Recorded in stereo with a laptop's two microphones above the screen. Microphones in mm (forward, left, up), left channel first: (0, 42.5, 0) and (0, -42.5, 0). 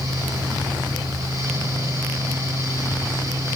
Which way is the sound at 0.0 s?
35° right (ahead or behind).